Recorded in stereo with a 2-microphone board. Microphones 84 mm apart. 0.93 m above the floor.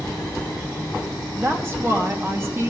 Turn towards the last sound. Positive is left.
turn(degrees=-30)  # may be behind; listen again after turning